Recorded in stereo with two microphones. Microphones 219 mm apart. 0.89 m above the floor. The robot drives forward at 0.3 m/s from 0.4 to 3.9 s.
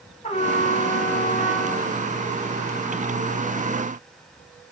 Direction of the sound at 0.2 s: 30° left (ahead or behind).